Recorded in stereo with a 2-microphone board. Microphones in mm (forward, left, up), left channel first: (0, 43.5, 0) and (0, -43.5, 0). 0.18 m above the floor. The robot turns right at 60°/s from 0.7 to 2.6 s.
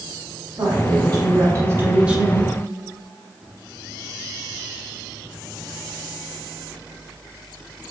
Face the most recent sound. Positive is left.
turn(degrees=10)